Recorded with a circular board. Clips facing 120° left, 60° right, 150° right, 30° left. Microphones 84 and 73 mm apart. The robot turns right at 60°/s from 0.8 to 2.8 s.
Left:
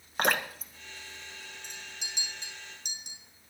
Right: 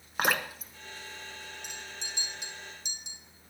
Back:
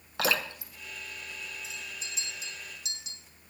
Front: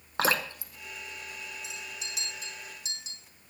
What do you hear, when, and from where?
0.2 s dripping: 25° left, 1.4 m
1.6 s a clink: 15° left, 4.5 m; by 3.2 s 85° left, 4.5 m